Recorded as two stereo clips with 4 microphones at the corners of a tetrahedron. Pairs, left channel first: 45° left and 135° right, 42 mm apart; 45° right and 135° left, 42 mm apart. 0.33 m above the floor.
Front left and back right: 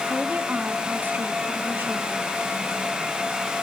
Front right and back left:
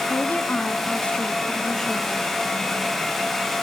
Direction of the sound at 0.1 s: 75° right.